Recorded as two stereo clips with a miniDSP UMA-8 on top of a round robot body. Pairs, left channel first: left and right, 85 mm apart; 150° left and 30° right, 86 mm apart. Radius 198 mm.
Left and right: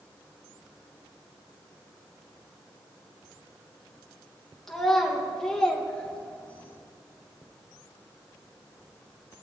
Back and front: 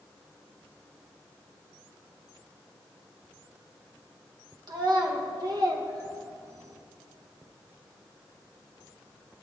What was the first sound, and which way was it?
A child speaking, 5° left.